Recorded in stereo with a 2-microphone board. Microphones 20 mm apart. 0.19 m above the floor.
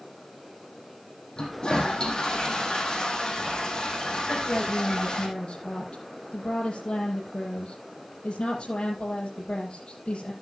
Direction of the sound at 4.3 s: 70° left (ahead or behind).